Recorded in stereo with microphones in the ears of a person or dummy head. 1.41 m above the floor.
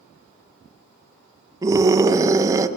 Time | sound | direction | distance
1.6 | a scream | 20° right (ahead or behind) | 1.1 m